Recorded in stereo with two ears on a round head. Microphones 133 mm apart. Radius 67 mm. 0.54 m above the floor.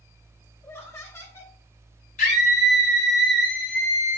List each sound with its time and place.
0.6 s laughter: 20° left (ahead or behind), 1.6 m
2.2 s a scream: 55° left (ahead or behind), 1.9 m